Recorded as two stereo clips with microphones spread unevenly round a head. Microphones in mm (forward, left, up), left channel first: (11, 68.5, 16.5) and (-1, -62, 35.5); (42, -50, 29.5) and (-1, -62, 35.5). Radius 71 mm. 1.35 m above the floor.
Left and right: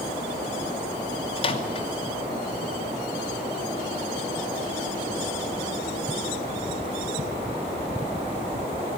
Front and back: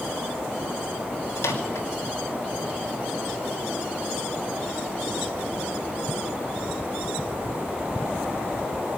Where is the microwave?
35° left, 2.5 m.